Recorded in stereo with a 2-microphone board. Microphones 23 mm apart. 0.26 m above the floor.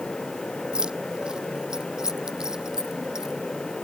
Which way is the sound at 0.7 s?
40° right (ahead or behind).